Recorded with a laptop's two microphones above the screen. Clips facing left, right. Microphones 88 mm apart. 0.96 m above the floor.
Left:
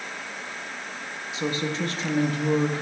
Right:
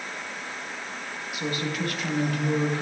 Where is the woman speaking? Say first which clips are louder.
Left 2 dB; 25° left (ahead or behind), 1.1 m.